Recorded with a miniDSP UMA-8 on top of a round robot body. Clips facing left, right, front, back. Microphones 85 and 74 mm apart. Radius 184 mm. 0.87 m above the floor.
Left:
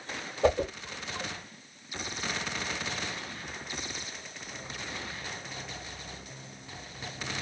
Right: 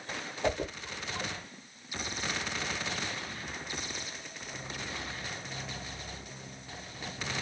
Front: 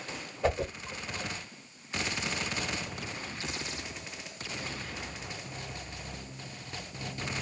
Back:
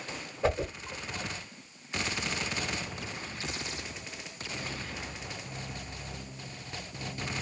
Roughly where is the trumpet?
No trumpet in this recording.